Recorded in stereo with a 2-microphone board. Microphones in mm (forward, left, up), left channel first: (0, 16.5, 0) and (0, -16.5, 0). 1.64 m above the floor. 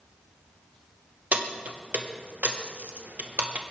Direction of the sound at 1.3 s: 55° right (ahead or behind).